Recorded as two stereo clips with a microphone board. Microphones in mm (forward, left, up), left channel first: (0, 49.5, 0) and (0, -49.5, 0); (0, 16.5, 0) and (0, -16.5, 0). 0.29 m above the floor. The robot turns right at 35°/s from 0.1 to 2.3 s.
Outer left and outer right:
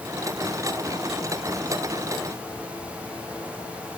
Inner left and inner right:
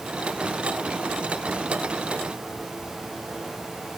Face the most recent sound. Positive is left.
No sound to turn to.